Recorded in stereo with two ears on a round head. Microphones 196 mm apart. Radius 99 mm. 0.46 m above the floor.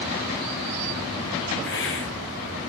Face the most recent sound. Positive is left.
turn(degrees=60)  # may be behind; listen again after turning